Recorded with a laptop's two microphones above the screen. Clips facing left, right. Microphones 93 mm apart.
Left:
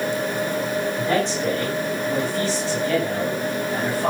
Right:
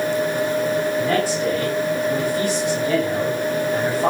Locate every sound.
1.0 s a man speaking: centre (ahead or behind), 8 m; by 4.1 s 30° right (ahead or behind), 7 m